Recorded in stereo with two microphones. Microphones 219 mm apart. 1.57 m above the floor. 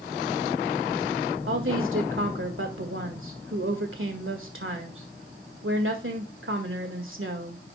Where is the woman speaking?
70° right (ahead or behind), 1.8 m.